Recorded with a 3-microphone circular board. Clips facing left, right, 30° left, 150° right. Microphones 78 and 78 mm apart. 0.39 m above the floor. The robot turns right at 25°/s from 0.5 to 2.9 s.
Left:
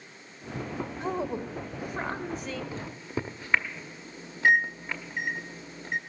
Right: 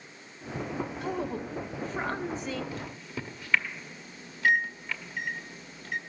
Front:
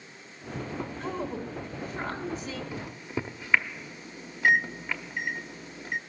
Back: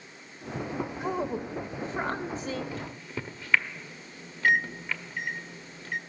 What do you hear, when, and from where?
1.0 s a woman speaking: 145° left, 1.1 m; by 2.6 s 175° right, 1.1 m
2.7 s a microwave: 80° left, 0.7 m; by 6.0 s 85° left, 0.7 m